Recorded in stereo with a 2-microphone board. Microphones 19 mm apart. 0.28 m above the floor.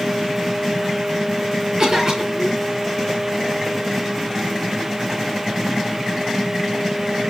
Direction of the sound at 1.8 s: 40° right (ahead or behind).